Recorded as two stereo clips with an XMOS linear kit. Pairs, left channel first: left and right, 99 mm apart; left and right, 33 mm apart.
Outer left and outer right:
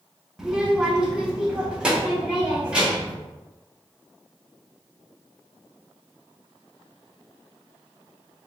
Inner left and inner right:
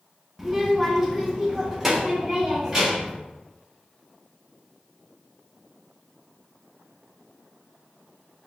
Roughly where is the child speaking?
Centre.